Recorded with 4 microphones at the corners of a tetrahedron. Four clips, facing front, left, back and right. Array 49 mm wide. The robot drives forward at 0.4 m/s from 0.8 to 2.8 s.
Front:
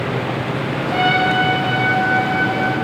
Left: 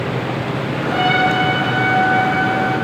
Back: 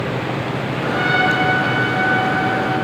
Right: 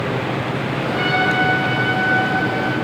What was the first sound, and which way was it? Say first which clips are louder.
A trumpet: left 3 dB, front 1 dB; 40° left.